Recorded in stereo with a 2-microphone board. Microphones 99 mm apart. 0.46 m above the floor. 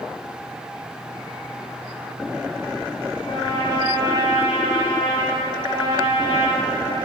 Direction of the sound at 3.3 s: 60° left (ahead or behind).